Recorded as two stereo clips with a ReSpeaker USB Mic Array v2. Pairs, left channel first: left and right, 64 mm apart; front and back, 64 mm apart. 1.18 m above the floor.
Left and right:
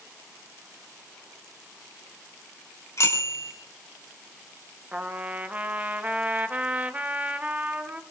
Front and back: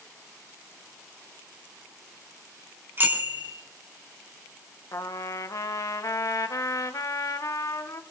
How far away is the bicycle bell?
About 3.5 m.